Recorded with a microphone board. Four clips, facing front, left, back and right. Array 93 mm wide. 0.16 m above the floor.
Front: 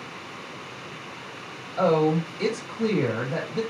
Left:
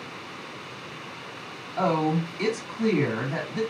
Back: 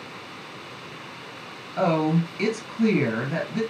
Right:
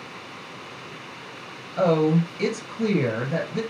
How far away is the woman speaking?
About 3 m.